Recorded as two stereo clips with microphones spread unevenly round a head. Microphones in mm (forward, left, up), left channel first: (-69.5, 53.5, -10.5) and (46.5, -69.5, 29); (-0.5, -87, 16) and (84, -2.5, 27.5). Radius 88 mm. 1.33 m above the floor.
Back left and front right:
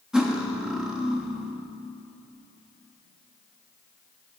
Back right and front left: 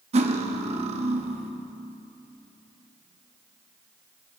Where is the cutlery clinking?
35° left, 1.1 m.